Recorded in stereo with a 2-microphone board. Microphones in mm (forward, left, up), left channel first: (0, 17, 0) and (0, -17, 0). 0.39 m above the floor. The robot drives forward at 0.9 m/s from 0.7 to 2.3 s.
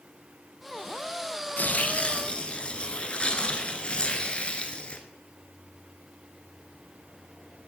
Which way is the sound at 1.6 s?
60° left (ahead or behind).